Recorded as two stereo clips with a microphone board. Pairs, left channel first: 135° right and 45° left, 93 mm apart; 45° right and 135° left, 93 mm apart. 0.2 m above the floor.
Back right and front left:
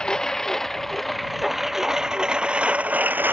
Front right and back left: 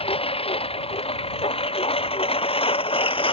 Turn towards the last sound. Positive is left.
turn(degrees=-25)